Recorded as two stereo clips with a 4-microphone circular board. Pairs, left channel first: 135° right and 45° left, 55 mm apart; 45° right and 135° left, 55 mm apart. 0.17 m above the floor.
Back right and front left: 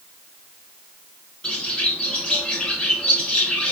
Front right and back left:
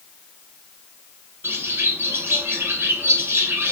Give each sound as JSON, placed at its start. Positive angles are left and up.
{"t": 1.4, "sound": "a bird", "azimuth_deg": 155, "distance_m": 1.6}